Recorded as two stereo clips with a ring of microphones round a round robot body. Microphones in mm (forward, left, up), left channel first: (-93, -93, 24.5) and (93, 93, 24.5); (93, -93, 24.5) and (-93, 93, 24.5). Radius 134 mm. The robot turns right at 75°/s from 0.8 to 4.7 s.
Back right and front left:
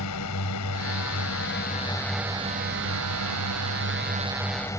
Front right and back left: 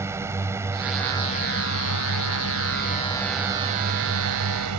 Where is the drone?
145° right; by 4.8 s 145° left.